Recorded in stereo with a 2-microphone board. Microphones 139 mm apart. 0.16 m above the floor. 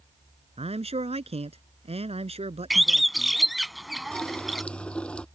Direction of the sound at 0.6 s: 50° right (ahead or behind).